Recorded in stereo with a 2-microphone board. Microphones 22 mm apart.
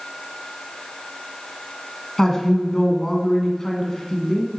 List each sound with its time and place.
2.2 s a woman speaking: 25° left (ahead or behind), 1.1 m